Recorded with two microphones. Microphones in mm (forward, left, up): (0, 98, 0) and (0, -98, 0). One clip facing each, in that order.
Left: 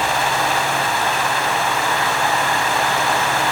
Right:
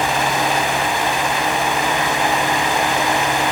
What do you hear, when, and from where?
Only background noise.